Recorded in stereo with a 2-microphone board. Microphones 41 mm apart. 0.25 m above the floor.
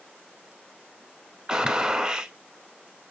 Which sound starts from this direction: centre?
A gunshot, at 1.5 s.